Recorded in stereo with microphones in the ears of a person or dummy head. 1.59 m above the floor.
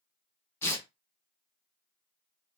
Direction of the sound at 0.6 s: 15° left (ahead or behind).